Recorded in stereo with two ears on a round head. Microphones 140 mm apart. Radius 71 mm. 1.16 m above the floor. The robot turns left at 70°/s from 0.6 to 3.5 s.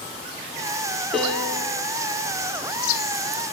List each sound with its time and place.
1.1 s a piano: 175° right, 1.4 m; by 1.8 s 135° left, 1.4 m